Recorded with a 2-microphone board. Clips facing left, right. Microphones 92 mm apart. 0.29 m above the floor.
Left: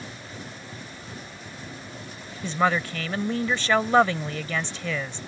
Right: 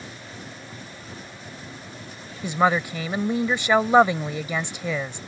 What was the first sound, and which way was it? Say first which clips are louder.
A woman speaking: right 2 dB; 15° right (ahead or behind).